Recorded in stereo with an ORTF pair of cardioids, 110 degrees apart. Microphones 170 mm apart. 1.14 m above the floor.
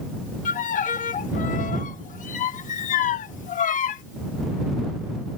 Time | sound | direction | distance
0.5 | a violin | 50° left | ?